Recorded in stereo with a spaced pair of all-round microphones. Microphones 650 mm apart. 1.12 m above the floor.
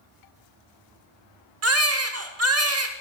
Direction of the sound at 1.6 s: 25° right (ahead or behind).